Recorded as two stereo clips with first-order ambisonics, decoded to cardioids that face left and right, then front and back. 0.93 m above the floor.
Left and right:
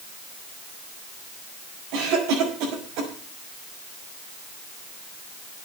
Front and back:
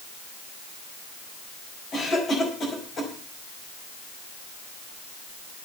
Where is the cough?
65° right, 5.5 m.